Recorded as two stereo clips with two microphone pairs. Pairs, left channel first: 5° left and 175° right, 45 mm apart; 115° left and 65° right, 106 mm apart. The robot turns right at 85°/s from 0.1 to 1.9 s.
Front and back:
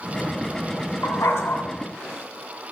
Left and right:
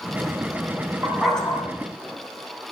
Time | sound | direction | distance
1.0 | a dog barking | straight ahead | 2.5 m